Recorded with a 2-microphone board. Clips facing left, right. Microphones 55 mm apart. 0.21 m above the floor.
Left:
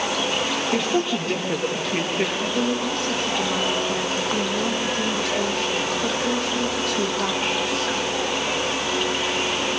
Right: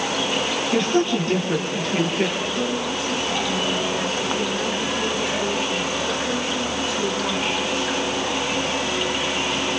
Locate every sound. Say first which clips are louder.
0.7 s a woman speaking: right 4 dB; 15° left (ahead or behind), 6 m; by 2.3 s 10° left (ahead or behind), 5 m
2.4 s a woman speaking: left 1 dB; 65° left (ahead or behind), 8.5 m